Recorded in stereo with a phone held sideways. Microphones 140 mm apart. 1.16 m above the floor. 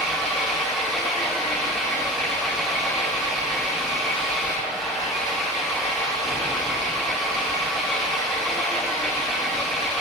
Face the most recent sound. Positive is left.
turn(degrees=0)  # may be behind; listen again after turning